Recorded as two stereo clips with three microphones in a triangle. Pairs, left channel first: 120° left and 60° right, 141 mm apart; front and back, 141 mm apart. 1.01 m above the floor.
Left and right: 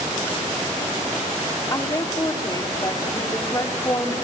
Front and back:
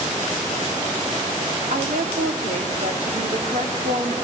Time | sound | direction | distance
1.7 | a woman speaking | 175° right | 2.5 m